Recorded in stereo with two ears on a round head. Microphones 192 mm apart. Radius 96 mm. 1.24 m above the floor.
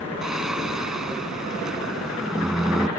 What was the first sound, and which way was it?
Singing, 5° right (ahead or behind).